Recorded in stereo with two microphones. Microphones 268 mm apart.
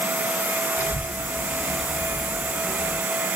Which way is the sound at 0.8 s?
5° right (ahead or behind).